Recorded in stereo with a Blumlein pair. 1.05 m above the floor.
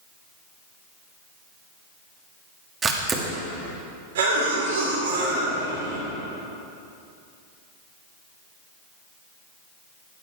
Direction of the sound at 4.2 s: 55° right.